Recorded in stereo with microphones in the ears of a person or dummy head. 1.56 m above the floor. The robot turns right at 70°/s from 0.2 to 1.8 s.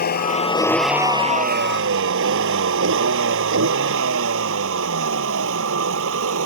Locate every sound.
0.0 s a vehicle: 50° left (ahead or behind); by 6.5 s 70° right (ahead or behind)